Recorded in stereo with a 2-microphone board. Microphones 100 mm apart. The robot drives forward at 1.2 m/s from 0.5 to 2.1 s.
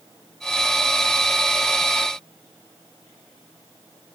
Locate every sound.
Only background noise.